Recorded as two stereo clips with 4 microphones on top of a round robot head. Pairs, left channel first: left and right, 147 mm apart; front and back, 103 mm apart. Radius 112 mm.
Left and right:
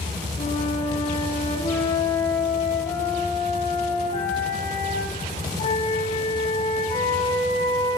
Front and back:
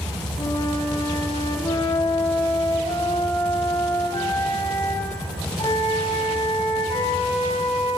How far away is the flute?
About 10 m.